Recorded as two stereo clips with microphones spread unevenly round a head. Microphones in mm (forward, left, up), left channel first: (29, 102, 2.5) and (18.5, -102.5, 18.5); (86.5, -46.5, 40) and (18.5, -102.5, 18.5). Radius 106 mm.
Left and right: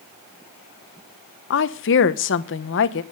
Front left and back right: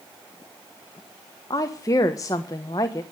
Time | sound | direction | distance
1.5 | a woman speaking | 110° left | 1.0 m